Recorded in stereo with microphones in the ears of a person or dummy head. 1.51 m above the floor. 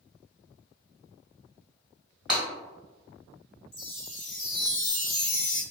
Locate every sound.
2.3 s breaking glass: 5° right (ahead or behind), 1.3 m
3.7 s a chime: 55° left (ahead or behind), 1.0 m